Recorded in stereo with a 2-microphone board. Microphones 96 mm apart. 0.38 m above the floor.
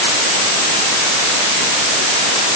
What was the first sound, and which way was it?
Only background noise.